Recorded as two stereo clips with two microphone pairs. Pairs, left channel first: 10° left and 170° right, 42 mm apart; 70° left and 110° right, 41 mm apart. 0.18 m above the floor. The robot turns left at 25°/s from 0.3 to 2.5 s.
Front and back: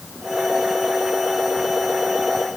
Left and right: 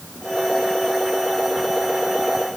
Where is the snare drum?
No snare drum in this recording.